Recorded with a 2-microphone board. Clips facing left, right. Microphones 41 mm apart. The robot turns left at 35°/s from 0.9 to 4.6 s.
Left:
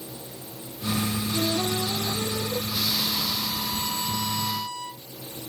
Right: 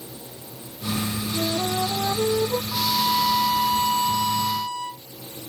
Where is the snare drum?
No snare drum in this recording.